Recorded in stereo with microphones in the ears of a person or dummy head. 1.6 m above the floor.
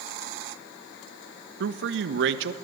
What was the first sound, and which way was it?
A man speaking, 70° right (ahead or behind).